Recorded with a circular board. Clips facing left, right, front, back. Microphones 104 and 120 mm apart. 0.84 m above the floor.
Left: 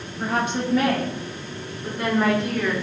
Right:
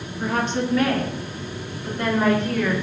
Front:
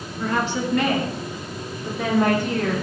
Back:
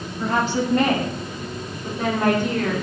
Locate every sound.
0.2 s a woman speaking: 140° left, 0.9 m; by 2.7 s 175° left, 4 m